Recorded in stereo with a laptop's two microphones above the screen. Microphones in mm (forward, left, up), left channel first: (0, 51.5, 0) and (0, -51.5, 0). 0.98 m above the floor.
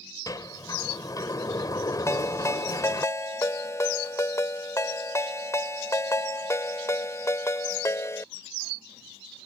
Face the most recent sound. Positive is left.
turn(degrees=30)  # may be behind; listen again after turning